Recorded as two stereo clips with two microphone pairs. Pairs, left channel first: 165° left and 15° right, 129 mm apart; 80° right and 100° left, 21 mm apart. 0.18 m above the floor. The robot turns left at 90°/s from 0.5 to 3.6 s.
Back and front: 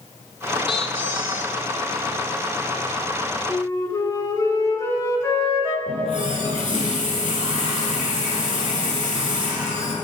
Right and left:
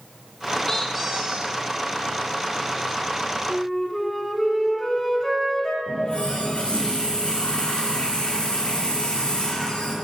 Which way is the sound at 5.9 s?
45° right.